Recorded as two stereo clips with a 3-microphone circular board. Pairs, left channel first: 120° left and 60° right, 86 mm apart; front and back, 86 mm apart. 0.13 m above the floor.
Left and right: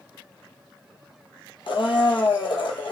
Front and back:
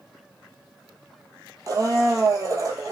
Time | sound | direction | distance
1.7 | a blender | 135° left | 0.7 m